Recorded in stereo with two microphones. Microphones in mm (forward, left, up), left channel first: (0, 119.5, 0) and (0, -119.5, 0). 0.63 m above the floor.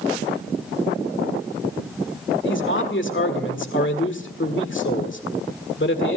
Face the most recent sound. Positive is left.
turn(degrees=55)  # may be behind; listen again after turning